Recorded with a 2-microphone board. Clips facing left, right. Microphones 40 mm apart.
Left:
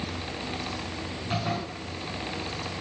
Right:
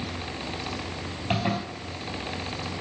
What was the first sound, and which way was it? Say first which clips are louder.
A zipper: right 3 dB; 50° right (ahead or behind).